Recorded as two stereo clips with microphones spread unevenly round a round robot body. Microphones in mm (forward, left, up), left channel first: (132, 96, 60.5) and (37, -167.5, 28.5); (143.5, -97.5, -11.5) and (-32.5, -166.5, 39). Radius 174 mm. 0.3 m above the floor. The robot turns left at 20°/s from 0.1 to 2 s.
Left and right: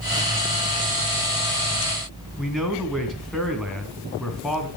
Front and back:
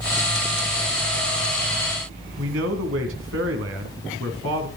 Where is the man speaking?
160° left, 2.5 m.